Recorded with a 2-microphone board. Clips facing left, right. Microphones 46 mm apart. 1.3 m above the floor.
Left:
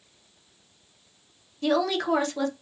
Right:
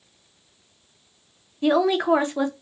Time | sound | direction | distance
1.6 | a woman speaking | 20° right (ahead or behind) | 0.5 m